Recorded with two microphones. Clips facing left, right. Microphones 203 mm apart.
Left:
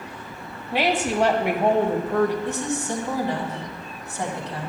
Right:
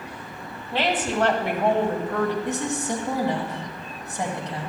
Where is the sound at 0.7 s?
15° left (ahead or behind), 1.2 m.